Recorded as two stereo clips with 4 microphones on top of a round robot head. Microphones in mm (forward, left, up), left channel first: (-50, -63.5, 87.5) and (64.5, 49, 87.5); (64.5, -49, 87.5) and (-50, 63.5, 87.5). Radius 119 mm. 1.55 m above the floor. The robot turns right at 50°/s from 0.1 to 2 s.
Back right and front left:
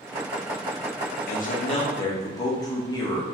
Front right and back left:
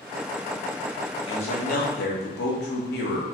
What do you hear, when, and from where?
1.3 s a man speaking: 105° right, 1.6 m; by 3.2 s 70° right, 1.6 m